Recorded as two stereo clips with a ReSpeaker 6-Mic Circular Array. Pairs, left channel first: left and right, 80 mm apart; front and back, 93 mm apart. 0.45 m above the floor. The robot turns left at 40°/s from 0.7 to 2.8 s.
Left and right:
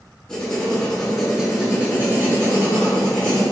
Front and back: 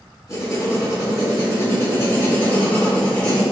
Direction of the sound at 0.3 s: 15° left.